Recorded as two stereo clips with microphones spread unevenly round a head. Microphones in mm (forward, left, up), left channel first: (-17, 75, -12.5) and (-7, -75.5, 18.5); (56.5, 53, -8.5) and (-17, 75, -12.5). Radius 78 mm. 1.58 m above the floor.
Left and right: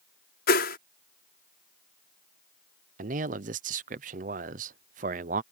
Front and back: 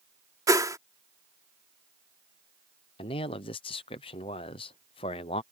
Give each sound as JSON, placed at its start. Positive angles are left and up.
{"t": 0.5, "sound": "a whoosh", "azimuth_deg": 120}
{"t": 3.0, "sound": "a man speaking", "azimuth_deg": -40}